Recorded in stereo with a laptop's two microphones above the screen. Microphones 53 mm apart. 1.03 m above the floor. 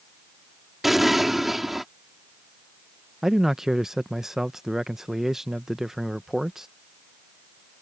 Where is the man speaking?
10° right (ahead or behind).